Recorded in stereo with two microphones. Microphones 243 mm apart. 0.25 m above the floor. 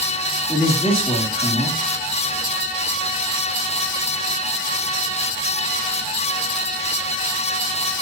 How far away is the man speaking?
About 5.5 m.